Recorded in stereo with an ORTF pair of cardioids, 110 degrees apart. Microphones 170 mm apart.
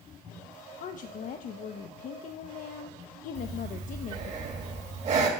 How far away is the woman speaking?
About 0.5 m.